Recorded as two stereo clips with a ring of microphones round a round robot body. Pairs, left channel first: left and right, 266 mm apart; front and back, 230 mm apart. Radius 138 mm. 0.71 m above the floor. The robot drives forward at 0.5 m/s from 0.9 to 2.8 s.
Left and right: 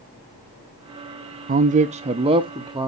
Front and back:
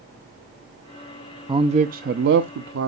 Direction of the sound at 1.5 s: 120° right.